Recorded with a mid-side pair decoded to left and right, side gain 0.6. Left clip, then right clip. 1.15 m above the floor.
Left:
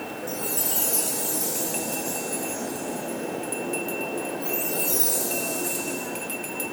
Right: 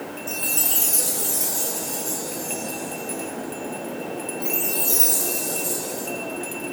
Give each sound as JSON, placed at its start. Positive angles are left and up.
{"t": 0.3, "sound": "a chime", "azimuth_deg": -30, "distance_m": 1.6}